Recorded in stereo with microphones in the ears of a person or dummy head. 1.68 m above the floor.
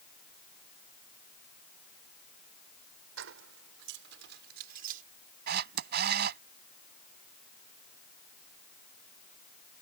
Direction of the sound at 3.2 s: 80° right.